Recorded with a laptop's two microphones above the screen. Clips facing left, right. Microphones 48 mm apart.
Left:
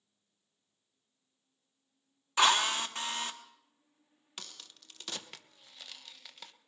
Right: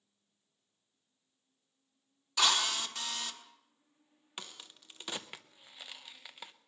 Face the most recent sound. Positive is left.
turn(degrees=-20)  # may be behind; listen again after turning